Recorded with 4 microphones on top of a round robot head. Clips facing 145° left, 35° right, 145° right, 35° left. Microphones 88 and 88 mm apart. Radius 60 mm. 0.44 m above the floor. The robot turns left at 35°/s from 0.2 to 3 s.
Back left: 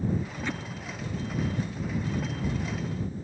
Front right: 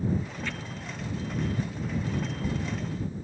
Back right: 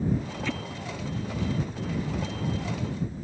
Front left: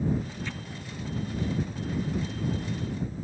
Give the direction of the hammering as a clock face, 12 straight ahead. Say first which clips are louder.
Back left 3 dB, back right 6 dB; 5 o'clock.